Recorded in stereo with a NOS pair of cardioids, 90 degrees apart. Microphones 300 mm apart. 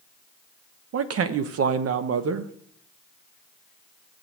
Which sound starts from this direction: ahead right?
A man speaking, at 0.9 s.